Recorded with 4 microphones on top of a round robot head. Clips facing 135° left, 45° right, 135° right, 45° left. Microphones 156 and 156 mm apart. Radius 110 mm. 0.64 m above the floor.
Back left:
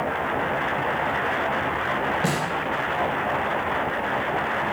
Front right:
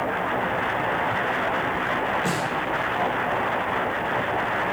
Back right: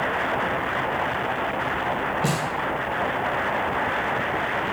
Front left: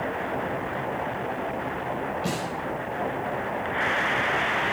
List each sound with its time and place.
2.2 s a snare drum: 175° right, 4.5 m